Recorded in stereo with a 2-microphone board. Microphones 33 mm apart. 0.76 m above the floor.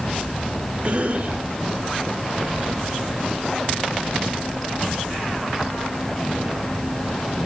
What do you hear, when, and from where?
0.8 s a cough: 45° right (ahead or behind), 2.5 m